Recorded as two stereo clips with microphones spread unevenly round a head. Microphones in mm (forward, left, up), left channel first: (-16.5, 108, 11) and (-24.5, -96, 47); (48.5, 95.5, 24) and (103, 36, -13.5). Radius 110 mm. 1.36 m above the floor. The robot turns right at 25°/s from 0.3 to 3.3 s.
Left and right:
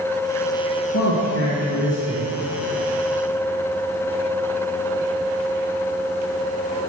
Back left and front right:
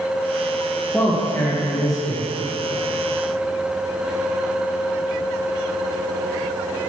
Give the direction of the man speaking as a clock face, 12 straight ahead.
10 o'clock.